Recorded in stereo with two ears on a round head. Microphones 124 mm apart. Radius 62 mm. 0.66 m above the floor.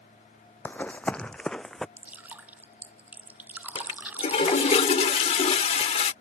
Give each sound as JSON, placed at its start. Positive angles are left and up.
{"t": 0.7, "sound": "running footsteps", "side_deg": 15}
{"t": 2.0, "sound": "dripping", "side_deg": -10}
{"t": 3.8, "sound": "a toilet flushing", "side_deg": 45}